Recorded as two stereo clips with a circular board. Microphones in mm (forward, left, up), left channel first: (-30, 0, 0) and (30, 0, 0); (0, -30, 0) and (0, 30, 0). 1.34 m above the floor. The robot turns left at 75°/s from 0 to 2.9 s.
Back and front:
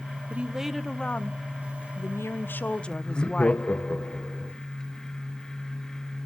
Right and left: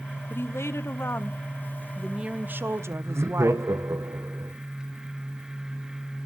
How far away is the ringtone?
No ringtone in this recording.